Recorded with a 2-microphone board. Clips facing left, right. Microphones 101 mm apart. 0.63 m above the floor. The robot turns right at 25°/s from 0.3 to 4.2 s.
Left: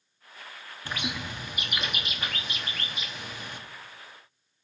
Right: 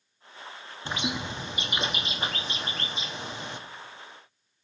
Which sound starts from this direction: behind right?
A bird, at 0.8 s.